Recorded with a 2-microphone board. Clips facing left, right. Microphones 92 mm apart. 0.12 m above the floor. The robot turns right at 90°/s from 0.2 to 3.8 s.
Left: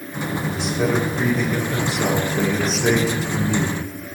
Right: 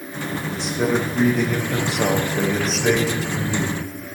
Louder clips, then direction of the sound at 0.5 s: Even; 160° left.